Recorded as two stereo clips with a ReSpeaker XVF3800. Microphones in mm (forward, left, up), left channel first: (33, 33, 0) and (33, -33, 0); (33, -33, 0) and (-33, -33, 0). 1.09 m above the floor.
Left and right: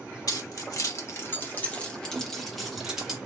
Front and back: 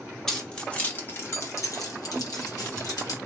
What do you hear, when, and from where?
0.3 s keys jangling: 80° left, 0.9 m; by 3.2 s 10° right, 1.3 m